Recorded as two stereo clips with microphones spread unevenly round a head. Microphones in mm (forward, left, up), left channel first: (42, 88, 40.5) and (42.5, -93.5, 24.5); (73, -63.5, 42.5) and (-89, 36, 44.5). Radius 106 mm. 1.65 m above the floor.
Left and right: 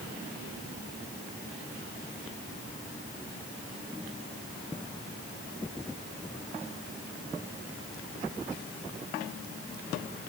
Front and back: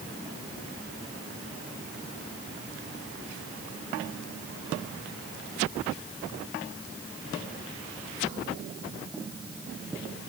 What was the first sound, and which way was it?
Only background noise.